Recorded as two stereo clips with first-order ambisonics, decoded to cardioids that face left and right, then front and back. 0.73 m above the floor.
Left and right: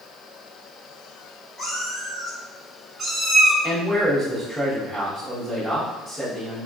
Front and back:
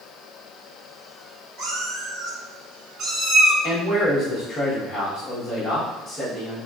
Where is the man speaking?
15° left, 1.0 m.